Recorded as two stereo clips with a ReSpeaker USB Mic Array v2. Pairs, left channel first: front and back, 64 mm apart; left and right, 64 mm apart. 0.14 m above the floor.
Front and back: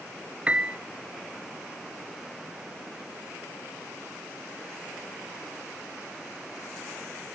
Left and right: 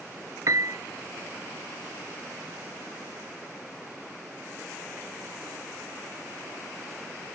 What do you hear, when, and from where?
0.5 s a piano: 110° right, 0.5 m